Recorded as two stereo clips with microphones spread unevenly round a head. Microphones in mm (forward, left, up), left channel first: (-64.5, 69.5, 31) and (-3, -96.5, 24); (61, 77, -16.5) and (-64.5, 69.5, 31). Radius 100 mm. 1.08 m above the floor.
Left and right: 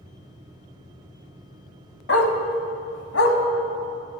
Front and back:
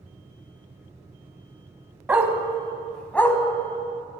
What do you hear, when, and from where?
2.1 s a dog barking: 125° left, 1.6 m; by 3.4 s 90° left, 1.8 m